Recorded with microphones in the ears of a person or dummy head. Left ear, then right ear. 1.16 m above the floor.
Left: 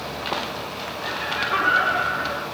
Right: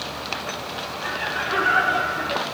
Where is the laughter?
75° right (ahead or behind), 2 m; by 2.5 s 85° right, 3 m.